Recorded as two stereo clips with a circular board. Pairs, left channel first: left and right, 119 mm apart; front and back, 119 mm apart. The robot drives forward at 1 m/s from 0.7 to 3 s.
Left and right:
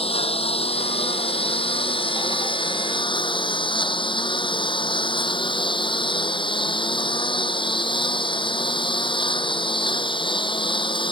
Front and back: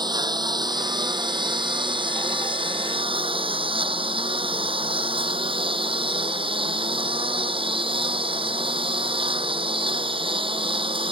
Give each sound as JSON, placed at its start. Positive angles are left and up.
{"t": 0.0, "sound": "a lawn mower", "azimuth_deg": 125}